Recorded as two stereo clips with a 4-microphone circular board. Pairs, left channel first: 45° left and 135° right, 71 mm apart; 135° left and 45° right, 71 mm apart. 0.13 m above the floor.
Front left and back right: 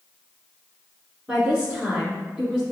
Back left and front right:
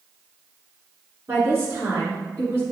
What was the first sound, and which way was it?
A woman speaking, 65° right.